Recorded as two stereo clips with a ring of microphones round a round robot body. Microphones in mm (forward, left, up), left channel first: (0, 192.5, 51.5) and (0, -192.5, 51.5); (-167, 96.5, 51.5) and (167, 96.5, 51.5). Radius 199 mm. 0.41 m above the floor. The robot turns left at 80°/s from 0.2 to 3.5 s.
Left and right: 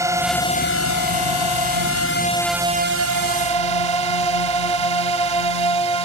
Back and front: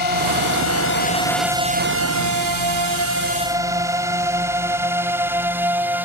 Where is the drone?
170° right; by 6.0 s 85° right.